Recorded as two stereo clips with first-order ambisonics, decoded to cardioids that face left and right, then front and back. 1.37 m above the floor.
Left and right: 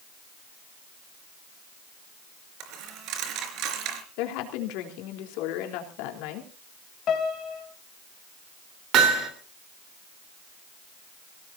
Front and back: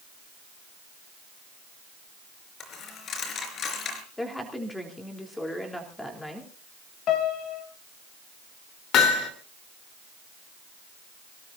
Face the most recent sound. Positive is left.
turn(degrees=-45)